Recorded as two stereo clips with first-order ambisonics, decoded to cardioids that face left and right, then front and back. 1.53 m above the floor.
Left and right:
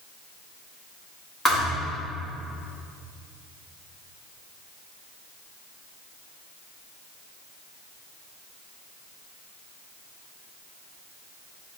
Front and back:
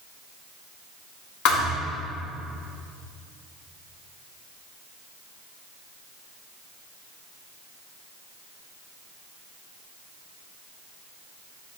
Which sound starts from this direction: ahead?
A thud, at 1.4 s.